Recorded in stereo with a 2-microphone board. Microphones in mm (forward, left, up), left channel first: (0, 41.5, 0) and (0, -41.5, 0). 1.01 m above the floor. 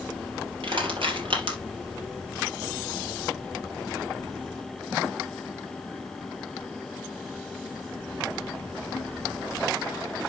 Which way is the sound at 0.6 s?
80° right.